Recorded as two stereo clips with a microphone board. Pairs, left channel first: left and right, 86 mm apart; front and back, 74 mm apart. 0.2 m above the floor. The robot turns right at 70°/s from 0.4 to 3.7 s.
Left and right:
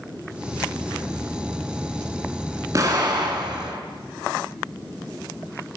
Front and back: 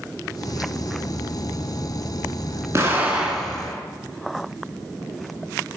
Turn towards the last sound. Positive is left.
turn(degrees=-65)